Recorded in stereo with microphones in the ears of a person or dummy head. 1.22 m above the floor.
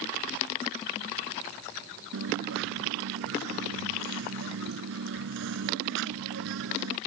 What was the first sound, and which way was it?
A dropped coin, 70° right (ahead or behind).